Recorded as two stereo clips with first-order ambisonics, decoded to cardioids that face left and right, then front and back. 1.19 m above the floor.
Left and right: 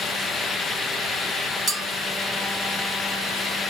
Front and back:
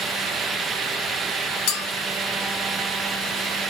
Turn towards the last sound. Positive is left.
turn(degrees=-15)